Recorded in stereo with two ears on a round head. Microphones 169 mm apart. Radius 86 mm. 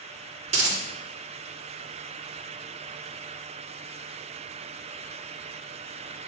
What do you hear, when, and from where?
0.5 s a dropped coin: 35° right (ahead or behind), 1.9 m